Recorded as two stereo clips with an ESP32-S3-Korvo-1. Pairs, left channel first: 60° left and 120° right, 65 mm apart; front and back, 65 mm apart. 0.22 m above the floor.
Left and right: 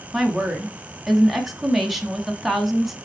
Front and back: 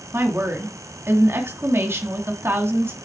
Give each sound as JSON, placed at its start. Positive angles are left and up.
{"t": 0.1, "sound": "a woman speaking", "azimuth_deg": 155, "distance_m": 1.7}